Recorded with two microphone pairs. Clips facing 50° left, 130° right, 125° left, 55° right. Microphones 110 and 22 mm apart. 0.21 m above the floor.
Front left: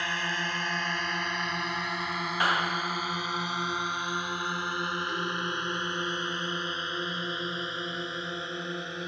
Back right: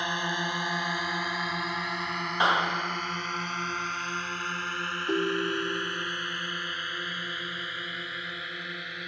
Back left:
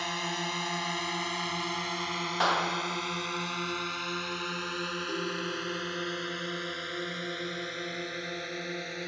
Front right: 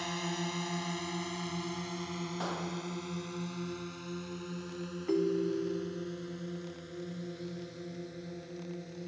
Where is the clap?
165° left.